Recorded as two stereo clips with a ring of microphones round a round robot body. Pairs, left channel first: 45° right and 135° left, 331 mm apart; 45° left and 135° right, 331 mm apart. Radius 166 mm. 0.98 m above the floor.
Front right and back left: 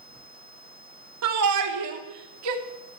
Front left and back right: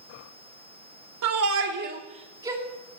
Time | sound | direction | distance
1.2 | a shout | straight behind | 3 m